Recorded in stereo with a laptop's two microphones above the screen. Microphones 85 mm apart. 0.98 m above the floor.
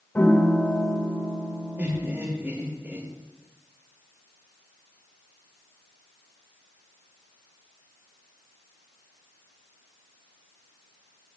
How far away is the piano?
About 2.0 m.